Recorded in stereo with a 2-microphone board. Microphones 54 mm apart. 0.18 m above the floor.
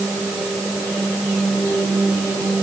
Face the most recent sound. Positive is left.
No sound to turn to.